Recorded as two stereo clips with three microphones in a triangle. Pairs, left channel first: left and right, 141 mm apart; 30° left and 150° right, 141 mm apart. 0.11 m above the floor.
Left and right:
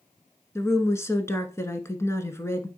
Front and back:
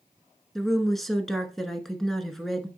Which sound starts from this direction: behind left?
A woman speaking, at 0.6 s.